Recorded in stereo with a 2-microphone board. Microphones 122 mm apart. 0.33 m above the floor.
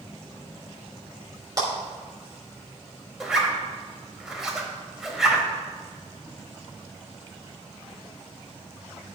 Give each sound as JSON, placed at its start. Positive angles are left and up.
{"t": 1.6, "sound": "a clap", "side_deg": -30, "distance_m": 3.0}
{"t": 3.2, "sound": "a zipper", "side_deg": -5, "distance_m": 1.3}